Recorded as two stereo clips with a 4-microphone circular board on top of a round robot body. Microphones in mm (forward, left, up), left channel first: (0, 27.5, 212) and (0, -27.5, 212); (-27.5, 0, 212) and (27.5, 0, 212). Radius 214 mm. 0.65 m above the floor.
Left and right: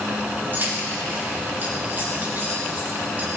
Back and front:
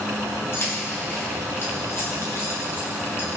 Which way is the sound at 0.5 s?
140° right.